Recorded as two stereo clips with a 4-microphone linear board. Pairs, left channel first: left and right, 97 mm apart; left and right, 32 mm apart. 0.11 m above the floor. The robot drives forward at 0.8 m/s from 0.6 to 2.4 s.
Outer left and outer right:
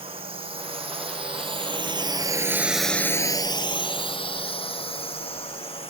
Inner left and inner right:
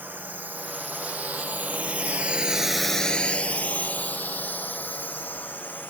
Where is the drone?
80° right; by 5.9 s 80° left.